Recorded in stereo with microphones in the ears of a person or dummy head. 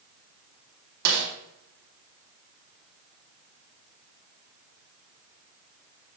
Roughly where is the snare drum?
Right.